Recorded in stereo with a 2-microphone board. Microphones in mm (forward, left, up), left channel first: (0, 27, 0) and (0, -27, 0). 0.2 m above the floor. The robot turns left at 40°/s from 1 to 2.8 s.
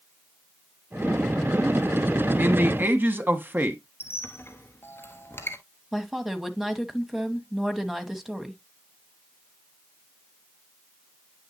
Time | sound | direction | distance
2.4 | a man speaking | 35° right (ahead or behind) | 1.3 m
4.0 | a squeak | 45° left (ahead or behind) | 1.4 m
5.9 | a woman speaking | 5° right (ahead or behind) | 1.0 m